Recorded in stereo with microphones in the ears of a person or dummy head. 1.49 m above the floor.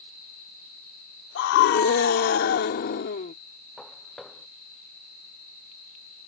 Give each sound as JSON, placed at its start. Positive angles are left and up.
{"t": 1.4, "sound": "a scream", "side_deg": 70}
{"t": 3.8, "sound": "footsteps", "side_deg": 0}